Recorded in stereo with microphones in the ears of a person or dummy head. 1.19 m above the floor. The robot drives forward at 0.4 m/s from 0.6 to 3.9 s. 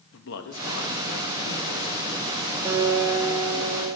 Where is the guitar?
15° right (ahead or behind), 3 m; by 3.9 s 20° right (ahead or behind), 2.5 m.